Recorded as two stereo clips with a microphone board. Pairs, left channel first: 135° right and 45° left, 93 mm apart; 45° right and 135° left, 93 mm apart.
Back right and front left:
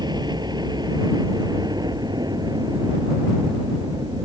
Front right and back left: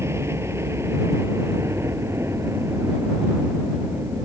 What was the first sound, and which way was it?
A helicopter, 80° left.